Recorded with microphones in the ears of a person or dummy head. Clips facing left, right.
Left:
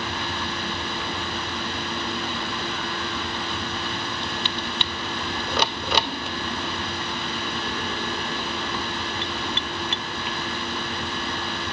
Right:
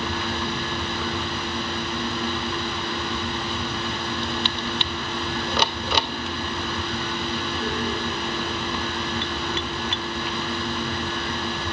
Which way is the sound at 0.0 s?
85° right.